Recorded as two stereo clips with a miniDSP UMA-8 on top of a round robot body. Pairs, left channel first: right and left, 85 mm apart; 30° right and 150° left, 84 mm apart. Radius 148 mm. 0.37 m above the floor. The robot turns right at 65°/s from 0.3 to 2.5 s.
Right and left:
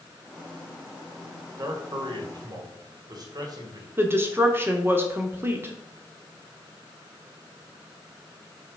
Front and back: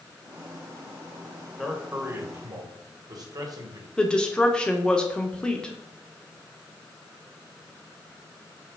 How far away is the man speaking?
About 2 m.